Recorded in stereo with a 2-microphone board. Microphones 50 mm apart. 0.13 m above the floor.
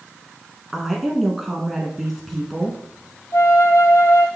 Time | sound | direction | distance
0.7 | a woman speaking | 5° right (ahead or behind) | 1.1 m
3.3 | a flute | 75° left (ahead or behind) | 0.7 m